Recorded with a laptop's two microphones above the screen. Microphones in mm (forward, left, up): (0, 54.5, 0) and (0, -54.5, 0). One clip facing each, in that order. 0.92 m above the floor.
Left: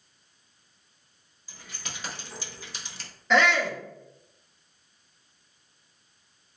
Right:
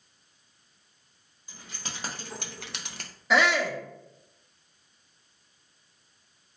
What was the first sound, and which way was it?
Keys jangling, 20° right (ahead or behind).